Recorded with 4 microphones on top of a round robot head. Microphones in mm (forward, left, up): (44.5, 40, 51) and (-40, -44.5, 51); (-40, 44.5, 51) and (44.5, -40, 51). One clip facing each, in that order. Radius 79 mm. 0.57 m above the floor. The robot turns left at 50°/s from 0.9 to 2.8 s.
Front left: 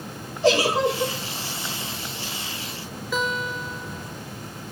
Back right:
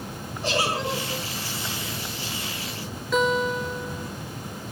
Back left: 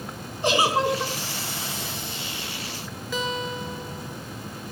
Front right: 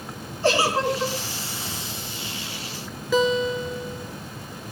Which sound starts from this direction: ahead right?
A guitar, at 3.1 s.